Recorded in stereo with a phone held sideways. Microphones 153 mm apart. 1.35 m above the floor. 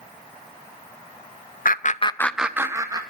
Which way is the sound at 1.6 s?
65° left (ahead or behind).